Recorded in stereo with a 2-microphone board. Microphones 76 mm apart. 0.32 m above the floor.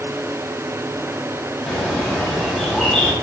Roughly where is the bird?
Centre.